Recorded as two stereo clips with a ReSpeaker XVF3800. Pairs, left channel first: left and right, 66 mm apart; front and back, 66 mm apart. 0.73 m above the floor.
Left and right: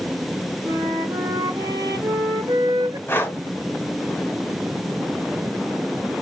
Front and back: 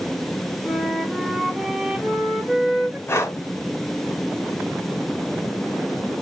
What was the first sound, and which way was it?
A flute, 95° right.